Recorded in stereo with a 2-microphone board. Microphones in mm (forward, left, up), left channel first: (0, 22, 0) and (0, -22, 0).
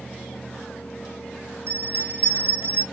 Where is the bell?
60° right (ahead or behind), 1.0 m.